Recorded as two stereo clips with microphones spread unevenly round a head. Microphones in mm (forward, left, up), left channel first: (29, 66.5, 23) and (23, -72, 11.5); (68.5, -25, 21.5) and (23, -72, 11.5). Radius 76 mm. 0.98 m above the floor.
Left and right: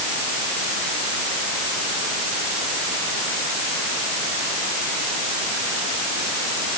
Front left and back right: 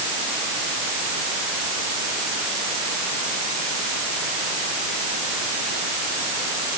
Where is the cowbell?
I don't hear a cowbell.